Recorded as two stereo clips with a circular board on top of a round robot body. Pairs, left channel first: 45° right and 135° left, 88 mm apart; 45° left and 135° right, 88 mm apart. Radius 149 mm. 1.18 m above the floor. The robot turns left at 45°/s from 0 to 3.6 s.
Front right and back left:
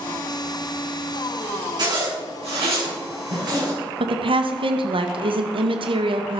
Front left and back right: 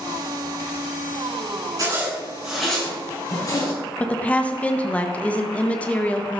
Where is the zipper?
175° left, 7 m; by 3.7 s 95° left, 7 m.